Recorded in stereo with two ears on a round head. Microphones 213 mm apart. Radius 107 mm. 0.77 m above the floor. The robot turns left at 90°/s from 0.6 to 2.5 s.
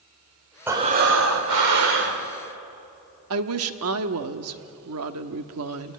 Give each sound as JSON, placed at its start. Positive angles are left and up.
{"t": 0.7, "sound": "breathing", "azimuth_deg": -10, "distance_m": 2.5}
{"t": 3.3, "sound": "a woman speaking", "side_deg": -60, "distance_m": 1.2}